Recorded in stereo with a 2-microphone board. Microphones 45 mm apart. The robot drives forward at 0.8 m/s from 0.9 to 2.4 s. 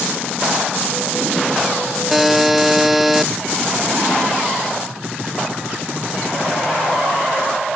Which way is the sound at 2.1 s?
5° right (ahead or behind).